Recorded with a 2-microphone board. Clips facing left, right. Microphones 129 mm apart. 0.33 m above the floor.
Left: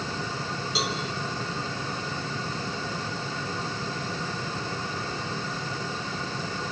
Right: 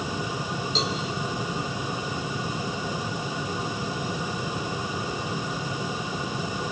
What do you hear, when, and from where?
0.8 s a cowbell: 10° left (ahead or behind), 4 m